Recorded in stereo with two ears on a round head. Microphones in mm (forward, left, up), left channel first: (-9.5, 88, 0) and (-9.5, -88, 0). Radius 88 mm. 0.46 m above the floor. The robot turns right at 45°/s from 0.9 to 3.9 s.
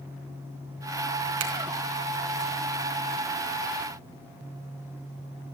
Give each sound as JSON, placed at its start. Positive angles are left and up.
{"t": 1.4, "sound": "a finger snap", "side_deg": -80, "distance_m": 4.5}